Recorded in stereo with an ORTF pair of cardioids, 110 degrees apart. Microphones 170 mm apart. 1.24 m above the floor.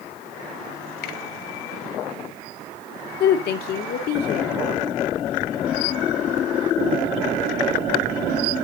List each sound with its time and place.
1.0 s a finger snap: 65° left, 3.5 m
3.2 s a woman speaking: 70° left, 2.5 m